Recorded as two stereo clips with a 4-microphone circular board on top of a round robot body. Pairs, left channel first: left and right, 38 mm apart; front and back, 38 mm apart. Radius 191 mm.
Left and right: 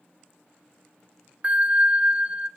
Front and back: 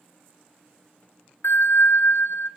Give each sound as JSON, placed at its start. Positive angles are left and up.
{"t": 1.4, "sound": "a bell", "azimuth_deg": -25, "distance_m": 0.6}